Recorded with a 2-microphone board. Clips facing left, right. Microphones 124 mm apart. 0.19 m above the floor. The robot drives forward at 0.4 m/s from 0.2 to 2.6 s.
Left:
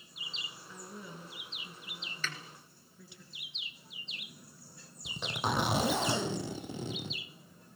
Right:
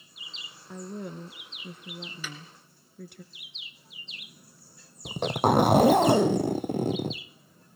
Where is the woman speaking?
60° right (ahead or behind), 2.0 m; by 3.2 s 55° right (ahead or behind), 2 m.